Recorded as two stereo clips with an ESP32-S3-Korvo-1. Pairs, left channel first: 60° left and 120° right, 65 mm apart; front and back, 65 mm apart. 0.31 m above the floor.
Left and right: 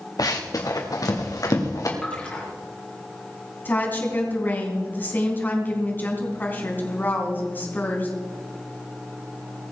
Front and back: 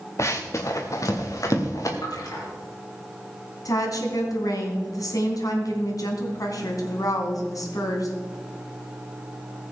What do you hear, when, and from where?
0.2 s running footsteps: 40° left, 2.0 m; by 1.9 s 30° left, 3.5 m
2.0 s a splash: 10° right, 4 m
3.6 s a woman speaking: 5° left, 3 m